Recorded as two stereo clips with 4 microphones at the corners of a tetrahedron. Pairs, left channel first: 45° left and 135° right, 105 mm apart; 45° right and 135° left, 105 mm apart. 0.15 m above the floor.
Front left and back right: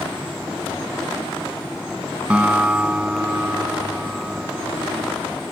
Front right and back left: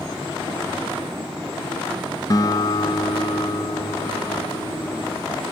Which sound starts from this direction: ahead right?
A guitar, at 2.3 s.